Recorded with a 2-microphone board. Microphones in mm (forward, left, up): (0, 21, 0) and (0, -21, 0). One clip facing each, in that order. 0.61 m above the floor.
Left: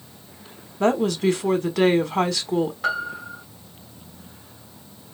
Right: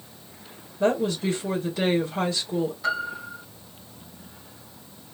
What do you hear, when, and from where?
0.8 s a woman speaking: 65° left (ahead or behind), 1.5 m
2.8 s a piano: 45° left (ahead or behind), 2.5 m